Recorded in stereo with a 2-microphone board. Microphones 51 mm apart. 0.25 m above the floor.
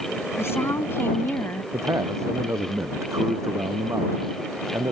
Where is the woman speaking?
60° left (ahead or behind); by 1.6 s 45° left (ahead or behind).